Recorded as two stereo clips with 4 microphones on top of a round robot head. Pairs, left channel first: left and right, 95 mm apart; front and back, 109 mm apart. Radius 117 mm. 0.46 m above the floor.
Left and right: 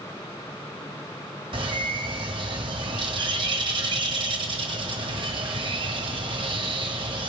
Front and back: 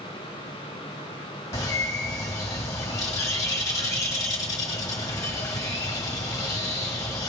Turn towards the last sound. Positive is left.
turn(degrees=-60)